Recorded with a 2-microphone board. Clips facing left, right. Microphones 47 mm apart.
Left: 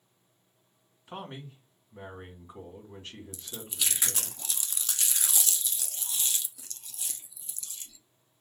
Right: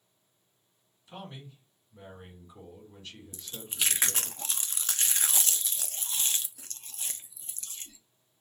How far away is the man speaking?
About 2.5 m.